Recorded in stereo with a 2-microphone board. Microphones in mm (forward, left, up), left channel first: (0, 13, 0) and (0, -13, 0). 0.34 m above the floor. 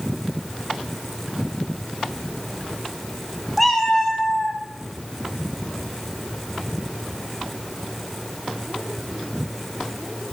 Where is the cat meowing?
Centre (ahead or behind), 0.7 m; by 4.6 s 30° left (ahead or behind), 1.3 m.